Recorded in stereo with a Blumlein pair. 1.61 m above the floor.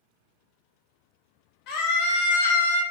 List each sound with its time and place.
1.7 s a scream: 40° left, 1.0 m; by 2.8 s 75° left, 0.7 m